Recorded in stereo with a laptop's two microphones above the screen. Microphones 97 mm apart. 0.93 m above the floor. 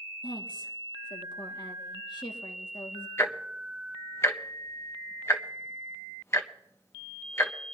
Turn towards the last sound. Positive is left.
turn(degrees=25)  # may be behind; listen again after turning